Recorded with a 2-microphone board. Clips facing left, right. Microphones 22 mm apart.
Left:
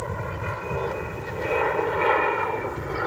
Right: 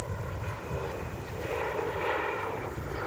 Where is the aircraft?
70° left (ahead or behind); by 3.1 s 65° left (ahead or behind).